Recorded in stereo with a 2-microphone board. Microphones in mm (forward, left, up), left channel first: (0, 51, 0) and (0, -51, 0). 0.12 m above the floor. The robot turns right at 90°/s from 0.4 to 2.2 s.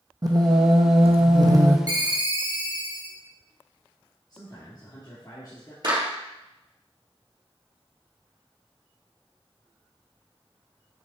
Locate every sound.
0.2 s singing: 140° right, 1.1 m; by 1.8 s 20° right, 1.1 m
1.9 s a ringtone: 40° right (ahead or behind), 1.0 m; by 3.2 s 45° right (ahead or behind), 1.0 m
4.3 s a man speaking: 40° left (ahead or behind), 2 m
5.8 s a clap: 45° right (ahead or behind), 2.5 m